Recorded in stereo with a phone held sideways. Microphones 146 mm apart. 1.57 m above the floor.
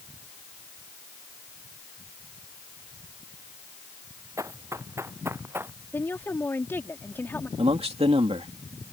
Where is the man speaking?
45° right (ahead or behind).